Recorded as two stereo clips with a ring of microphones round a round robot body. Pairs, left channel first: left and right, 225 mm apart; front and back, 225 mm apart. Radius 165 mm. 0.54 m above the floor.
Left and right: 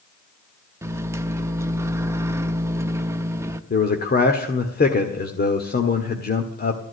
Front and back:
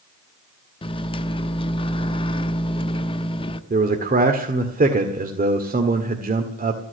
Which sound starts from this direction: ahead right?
A microwave, at 0.8 s.